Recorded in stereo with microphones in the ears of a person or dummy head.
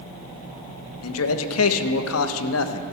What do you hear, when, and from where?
1.0 s a man speaking: 85° left, 1.1 m